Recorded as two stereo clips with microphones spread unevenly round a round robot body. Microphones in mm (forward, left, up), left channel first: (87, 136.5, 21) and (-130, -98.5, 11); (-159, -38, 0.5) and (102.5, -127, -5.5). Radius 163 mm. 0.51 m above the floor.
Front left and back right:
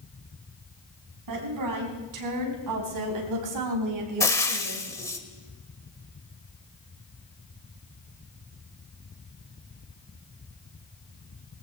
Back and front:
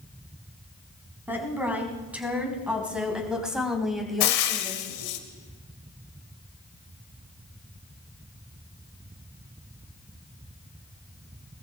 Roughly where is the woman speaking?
Right.